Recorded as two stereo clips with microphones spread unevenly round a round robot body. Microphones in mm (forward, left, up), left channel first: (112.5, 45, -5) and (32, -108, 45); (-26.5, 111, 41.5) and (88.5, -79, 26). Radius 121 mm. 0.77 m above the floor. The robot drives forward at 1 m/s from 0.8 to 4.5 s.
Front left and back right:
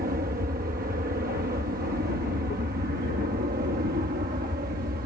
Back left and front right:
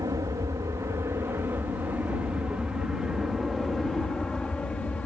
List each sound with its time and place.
0.0 s an aircraft: 120° right; by 5.1 s 155° right